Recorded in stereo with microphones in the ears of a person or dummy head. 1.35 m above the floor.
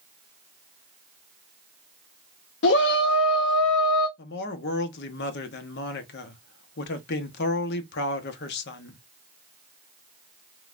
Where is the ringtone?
No ringtone in this recording.